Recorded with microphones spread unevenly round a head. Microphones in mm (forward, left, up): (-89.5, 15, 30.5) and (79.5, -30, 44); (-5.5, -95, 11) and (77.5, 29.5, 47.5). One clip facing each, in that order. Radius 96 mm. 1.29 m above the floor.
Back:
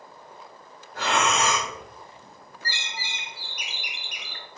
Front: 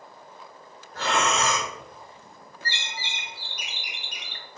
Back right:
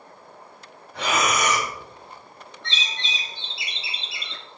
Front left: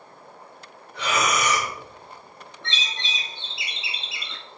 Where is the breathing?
120° right, 3 m.